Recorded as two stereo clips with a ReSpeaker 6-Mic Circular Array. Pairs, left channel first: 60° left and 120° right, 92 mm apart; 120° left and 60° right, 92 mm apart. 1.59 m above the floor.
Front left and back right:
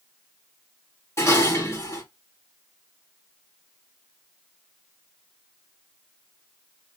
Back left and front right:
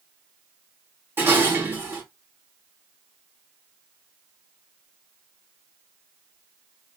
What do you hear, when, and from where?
1.2 s dishes clattering: 5° left, 2.5 m